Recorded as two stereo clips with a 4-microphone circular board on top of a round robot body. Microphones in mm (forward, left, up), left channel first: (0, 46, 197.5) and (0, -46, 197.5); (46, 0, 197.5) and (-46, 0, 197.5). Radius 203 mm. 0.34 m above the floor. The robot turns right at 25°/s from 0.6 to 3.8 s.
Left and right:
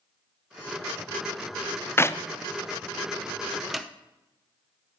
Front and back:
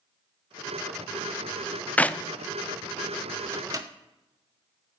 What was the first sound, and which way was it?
A clap, 60° left.